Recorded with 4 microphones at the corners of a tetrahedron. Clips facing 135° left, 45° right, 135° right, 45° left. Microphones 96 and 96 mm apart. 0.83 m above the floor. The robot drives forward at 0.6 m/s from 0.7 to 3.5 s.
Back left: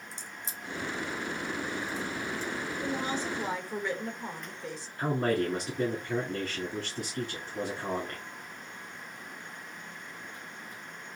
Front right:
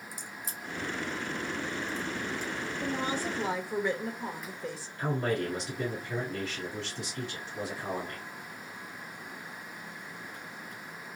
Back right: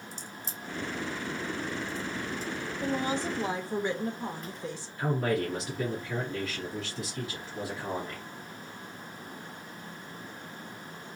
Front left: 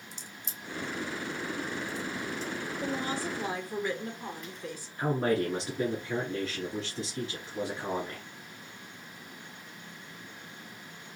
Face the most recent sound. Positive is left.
turn(degrees=105)